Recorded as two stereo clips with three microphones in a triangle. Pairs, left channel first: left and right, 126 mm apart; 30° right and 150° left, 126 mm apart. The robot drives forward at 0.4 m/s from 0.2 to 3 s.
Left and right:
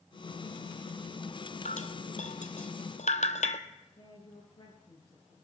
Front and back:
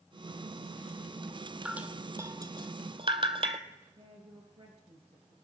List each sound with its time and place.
1.6 s dripping: 70° left, 0.8 m; by 3.6 s 110° left, 0.8 m
4.0 s a woman speaking: 125° left, 2.5 m